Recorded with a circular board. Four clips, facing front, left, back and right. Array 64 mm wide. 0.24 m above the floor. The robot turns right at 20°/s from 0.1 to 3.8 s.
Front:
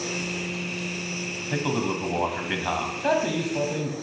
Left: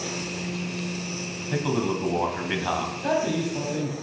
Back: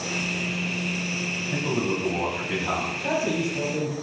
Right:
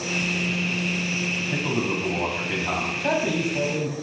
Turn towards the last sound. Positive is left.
turn(degrees=5)